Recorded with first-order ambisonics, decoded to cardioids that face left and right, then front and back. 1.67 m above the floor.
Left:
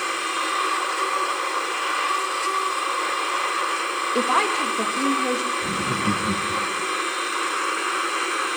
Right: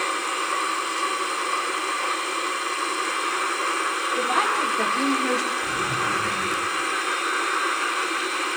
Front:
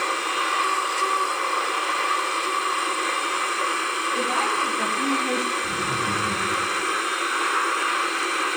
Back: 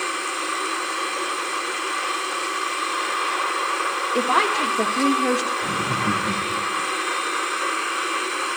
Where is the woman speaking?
135° left, 1.9 m; by 5.5 s straight behind, 2.5 m.